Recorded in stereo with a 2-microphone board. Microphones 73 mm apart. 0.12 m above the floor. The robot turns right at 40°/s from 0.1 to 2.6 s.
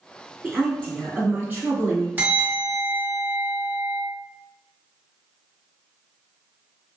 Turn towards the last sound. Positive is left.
turn(degrees=-30)  # may be behind; listen again after turning